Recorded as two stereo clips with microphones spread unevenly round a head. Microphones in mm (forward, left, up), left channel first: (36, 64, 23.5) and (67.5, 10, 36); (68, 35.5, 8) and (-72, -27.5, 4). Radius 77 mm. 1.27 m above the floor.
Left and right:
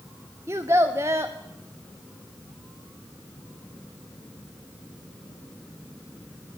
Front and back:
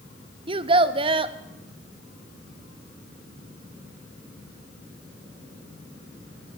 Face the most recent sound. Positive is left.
turn(degrees=-105)